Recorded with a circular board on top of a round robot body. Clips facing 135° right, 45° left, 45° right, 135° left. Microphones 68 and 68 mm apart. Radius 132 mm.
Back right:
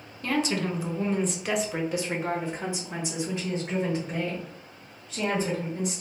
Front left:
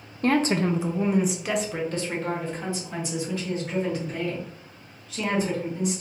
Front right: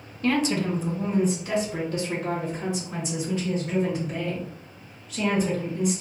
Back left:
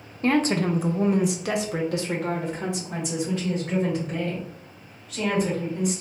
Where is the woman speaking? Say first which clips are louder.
Front left 5 dB, back left 2 dB; 80° left, 0.6 m; by 6.0 s 170° left, 3 m.